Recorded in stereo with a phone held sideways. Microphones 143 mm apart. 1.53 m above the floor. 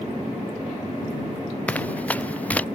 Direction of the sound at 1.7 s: 10° left (ahead or behind).